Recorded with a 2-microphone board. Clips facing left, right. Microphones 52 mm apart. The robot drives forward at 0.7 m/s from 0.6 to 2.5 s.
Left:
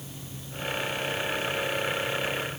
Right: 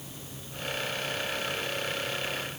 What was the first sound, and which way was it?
Only background noise.